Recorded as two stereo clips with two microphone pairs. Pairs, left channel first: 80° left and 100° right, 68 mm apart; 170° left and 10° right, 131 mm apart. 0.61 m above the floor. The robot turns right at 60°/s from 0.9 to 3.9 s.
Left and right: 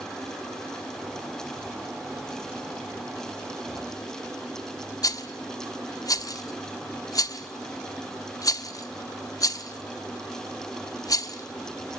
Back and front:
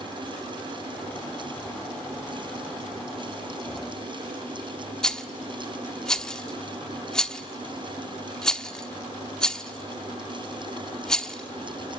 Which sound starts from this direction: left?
A rattle, at 5.0 s.